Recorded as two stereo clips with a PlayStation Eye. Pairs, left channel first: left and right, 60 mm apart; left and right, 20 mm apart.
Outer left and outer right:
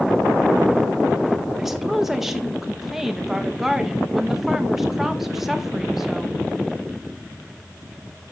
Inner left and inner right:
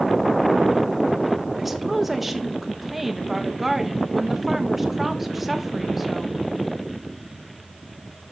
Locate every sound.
1.6 s a woman speaking: 5° right (ahead or behind), 1.3 m